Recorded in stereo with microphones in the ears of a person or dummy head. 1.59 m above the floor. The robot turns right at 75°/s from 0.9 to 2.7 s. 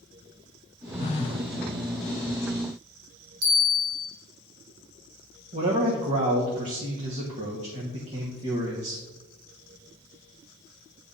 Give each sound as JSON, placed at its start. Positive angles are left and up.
{"t": 1.0, "sound": "a phone buzzing", "azimuth_deg": 115, "distance_m": 0.6}
{"t": 3.4, "sound": "a bell", "side_deg": -60, "distance_m": 3.0}
{"t": 5.5, "sound": "a man speaking", "side_deg": -30, "distance_m": 1.2}